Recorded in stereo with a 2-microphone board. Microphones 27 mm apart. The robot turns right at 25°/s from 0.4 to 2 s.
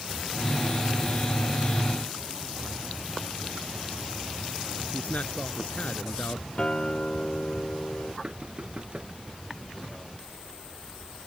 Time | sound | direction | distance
4.9 | a man speaking | 65° left (ahead or behind) | ?
6.6 | a guitar | 35° left (ahead or behind) | ?
8.2 | knocking | 45° right (ahead or behind) | ?